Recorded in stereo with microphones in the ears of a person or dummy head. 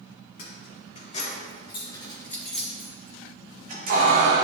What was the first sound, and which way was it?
Keys jangling, 45° left (ahead or behind).